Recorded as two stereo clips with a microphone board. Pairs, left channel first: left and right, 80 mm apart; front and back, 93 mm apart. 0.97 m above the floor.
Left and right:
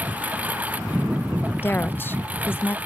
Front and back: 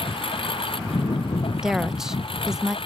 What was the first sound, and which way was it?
A lawn mower, 20° right.